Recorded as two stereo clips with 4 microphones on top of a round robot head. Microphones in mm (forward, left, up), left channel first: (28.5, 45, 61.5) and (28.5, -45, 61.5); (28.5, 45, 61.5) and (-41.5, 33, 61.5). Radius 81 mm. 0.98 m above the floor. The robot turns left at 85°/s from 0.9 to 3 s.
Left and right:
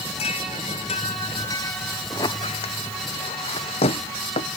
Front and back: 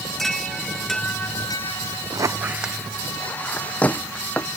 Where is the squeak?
155° left; by 4.5 s 80° left.